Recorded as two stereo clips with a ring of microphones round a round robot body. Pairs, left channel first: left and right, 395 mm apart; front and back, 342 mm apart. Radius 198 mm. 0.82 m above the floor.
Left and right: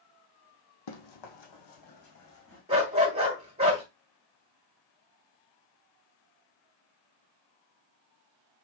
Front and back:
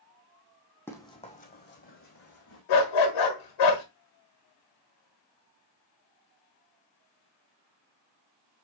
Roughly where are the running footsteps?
Left.